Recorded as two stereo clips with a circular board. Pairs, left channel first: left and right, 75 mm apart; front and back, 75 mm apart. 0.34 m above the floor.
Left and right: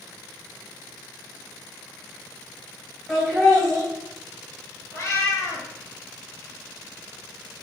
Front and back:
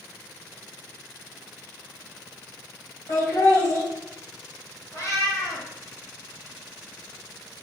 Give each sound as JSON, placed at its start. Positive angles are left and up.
{"t": 3.1, "sound": "laughter", "azimuth_deg": -5, "distance_m": 1.9}
{"t": 4.9, "sound": "a cat meowing", "azimuth_deg": 45, "distance_m": 1.3}